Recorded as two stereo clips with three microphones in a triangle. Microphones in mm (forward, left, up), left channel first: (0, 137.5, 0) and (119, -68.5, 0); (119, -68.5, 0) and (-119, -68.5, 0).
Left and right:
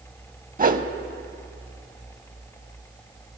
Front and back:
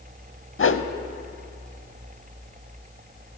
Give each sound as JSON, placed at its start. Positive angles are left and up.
{"t": 0.6, "sound": "a whoosh", "azimuth_deg": -10, "distance_m": 0.5}